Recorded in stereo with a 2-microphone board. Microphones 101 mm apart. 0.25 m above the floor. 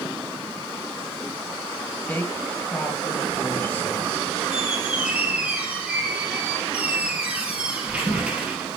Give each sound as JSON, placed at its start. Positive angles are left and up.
{"t": 2.1, "sound": "a woman speaking", "side_deg": 15, "distance_m": 4.0}
{"t": 4.5, "sound": "a squeak", "side_deg": -15, "distance_m": 3.0}